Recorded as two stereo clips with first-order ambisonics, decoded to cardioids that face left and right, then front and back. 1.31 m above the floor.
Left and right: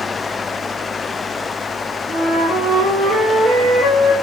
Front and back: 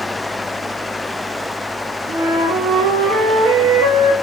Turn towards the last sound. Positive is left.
turn(degrees=175)